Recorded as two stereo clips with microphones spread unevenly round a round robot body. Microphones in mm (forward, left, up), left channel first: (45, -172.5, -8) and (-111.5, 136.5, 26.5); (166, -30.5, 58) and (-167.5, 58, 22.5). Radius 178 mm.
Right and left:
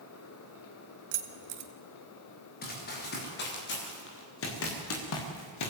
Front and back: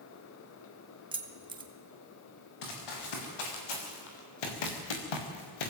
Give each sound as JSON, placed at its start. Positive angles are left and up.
{"t": 1.1, "sound": "keys jangling", "azimuth_deg": 90, "distance_m": 1.9}
{"t": 2.6, "sound": "running footsteps", "azimuth_deg": 5, "distance_m": 6.0}